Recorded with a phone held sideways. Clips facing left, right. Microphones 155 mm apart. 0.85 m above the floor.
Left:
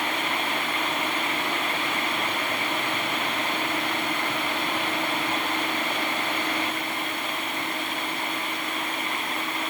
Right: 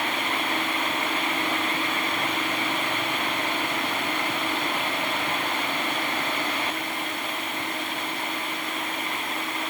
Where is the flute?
I don't hear a flute.